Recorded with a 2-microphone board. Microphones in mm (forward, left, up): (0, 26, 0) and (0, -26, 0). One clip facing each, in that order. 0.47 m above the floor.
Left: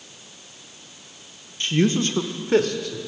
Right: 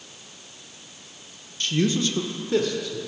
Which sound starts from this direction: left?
A man speaking, at 1.6 s.